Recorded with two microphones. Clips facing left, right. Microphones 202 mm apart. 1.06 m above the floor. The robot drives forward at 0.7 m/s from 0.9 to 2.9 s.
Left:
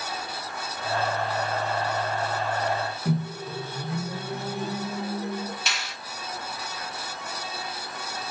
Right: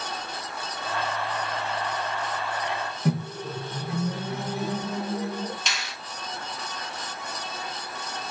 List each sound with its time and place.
3.0 s a microwave: 90° right, 0.8 m
5.7 s a finger snap: 5° left (ahead or behind), 1.5 m